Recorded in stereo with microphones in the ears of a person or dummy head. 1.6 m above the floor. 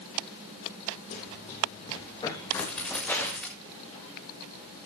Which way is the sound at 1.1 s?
45° left (ahead or behind).